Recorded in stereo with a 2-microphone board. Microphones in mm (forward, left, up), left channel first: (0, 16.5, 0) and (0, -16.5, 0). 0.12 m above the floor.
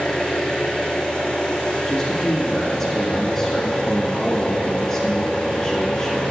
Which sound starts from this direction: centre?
A man speaking, at 1.9 s.